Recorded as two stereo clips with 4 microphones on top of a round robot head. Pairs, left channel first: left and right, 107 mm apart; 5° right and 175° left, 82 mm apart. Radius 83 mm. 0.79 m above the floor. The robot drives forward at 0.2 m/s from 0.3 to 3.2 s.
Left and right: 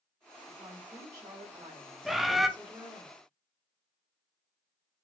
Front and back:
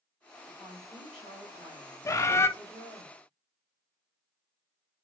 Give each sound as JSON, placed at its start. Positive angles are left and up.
{"t": 0.5, "sound": "a woman speaking", "azimuth_deg": -150, "distance_m": 1.8}
{"t": 2.0, "sound": "a bird", "azimuth_deg": 0, "distance_m": 0.5}